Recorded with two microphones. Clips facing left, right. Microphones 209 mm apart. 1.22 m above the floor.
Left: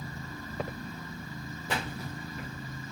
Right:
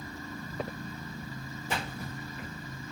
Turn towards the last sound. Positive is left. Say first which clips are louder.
# left 1 dB
turn(degrees=90)